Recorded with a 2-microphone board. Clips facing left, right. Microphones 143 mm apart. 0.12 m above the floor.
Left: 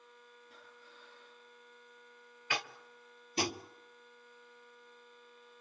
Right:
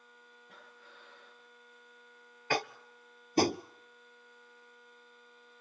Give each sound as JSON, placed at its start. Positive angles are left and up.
{"t": 0.5, "sound": "breathing", "side_deg": -85, "distance_m": 3.5}
{"t": 2.5, "sound": "tapping", "side_deg": -45, "distance_m": 0.5}